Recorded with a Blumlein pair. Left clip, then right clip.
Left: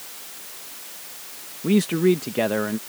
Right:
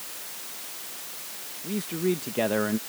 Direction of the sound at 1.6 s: 35° left.